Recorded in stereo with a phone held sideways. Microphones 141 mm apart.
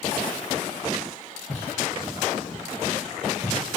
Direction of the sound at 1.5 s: 30° left (ahead or behind).